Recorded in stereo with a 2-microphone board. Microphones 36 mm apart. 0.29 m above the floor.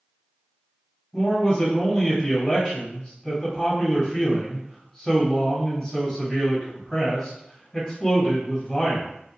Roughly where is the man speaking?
Left.